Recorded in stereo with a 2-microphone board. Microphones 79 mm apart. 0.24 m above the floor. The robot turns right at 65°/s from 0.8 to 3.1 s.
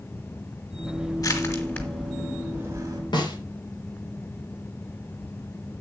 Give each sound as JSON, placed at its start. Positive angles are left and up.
{"t": 1.2, "sound": "crushing", "side_deg": 55, "distance_m": 3.0}
{"t": 3.1, "sound": "a snare drum", "side_deg": 65, "distance_m": 4.5}